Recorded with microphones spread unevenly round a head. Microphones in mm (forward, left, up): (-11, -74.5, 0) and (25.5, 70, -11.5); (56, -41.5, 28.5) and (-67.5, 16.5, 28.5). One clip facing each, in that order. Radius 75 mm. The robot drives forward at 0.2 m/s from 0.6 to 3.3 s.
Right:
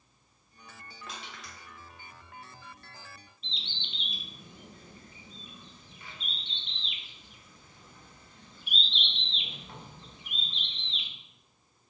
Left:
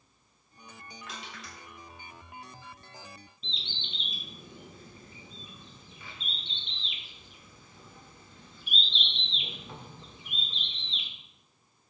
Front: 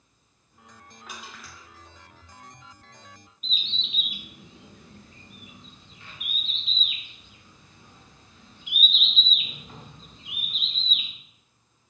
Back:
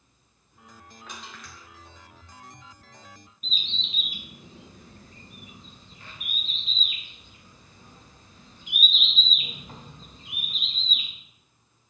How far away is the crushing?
About 2.0 m.